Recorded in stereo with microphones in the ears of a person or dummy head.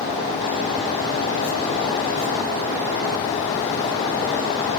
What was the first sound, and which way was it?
Only background noise.